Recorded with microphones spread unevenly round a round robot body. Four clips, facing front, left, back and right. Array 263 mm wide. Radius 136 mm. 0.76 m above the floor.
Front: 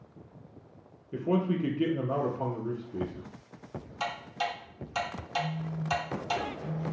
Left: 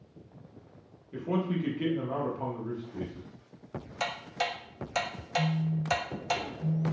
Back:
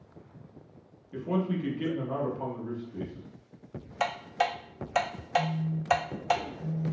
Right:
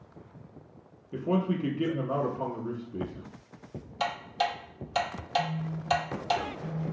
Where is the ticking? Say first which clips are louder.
Right 4 dB, back 5 dB; 175° right, 0.5 m.